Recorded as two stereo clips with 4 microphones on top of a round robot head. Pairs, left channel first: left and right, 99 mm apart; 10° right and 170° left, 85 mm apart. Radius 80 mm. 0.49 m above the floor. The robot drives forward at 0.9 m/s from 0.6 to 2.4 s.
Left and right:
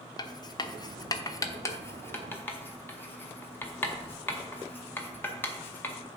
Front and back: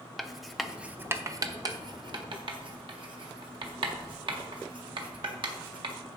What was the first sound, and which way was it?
Writing, 80° left.